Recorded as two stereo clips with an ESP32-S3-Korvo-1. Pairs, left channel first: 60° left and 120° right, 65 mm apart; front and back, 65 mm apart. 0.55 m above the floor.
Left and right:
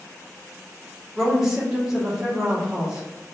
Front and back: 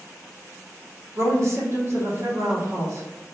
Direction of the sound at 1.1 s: 160° left.